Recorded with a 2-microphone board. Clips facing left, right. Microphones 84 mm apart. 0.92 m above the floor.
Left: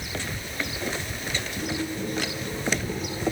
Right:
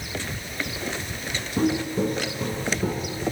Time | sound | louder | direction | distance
1.6 | footsteps | right 10 dB | 80° right | 5 m